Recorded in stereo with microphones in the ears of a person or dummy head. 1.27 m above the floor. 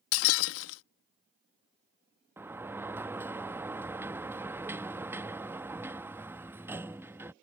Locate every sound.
0.1 s breaking glass: 75° left (ahead or behind)
2.4 s a sliding door: 10° right (ahead or behind)